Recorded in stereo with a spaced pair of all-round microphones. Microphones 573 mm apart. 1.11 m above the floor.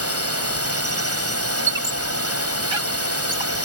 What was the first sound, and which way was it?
A drone, 25° right (ahead or behind).